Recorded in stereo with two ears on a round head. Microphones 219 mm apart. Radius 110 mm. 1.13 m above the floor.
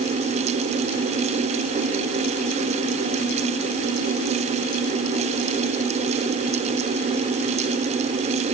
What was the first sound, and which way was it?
Only background noise.